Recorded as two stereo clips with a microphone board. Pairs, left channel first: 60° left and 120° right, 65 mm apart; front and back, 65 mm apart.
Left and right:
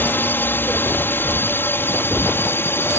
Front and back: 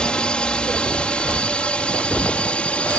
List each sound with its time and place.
0.0 s a drone: 60° left; by 3.0 s 55° left